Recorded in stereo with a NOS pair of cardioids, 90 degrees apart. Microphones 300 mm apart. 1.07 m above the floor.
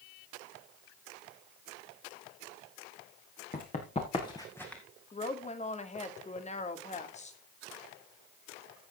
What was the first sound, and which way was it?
Running footsteps, 30° left.